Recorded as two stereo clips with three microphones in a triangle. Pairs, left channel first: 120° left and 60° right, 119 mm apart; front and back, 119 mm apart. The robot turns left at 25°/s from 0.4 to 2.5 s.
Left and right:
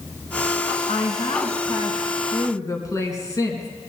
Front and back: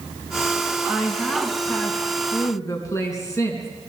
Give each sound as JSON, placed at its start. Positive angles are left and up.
{"t": 0.9, "sound": "a woman speaking", "azimuth_deg": 100, "distance_m": 4.0}